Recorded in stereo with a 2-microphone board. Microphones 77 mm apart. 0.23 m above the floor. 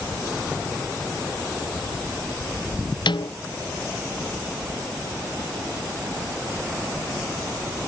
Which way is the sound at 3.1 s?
80° left.